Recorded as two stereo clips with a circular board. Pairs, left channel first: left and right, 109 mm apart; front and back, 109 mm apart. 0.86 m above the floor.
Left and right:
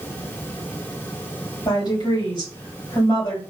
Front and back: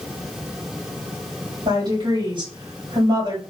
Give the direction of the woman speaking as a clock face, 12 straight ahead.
7 o'clock.